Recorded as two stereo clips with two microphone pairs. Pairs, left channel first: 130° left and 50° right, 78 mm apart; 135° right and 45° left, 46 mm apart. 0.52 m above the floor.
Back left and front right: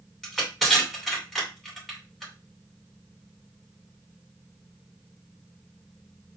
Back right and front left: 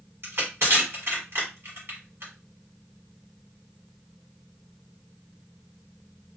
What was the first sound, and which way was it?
Crushing, 45° left.